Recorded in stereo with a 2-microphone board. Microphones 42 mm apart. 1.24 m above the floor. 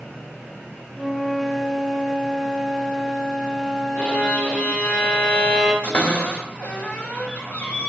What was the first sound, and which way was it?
A flute, 5° right (ahead or behind).